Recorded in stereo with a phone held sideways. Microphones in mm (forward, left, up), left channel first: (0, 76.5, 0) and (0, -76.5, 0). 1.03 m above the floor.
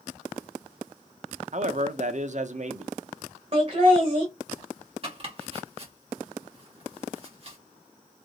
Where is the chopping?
40° right (ahead or behind), 1.3 m.